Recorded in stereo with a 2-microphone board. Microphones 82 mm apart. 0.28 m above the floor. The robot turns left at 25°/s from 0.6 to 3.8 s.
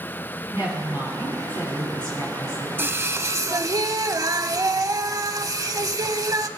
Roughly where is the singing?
Right.